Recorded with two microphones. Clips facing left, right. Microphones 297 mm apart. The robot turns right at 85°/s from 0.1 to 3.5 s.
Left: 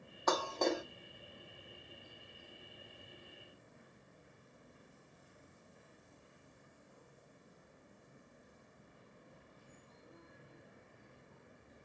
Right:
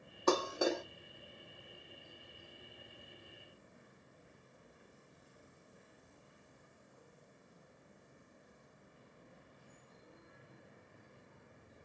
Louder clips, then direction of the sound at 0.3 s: Right 2 dB; 40° right (ahead or behind).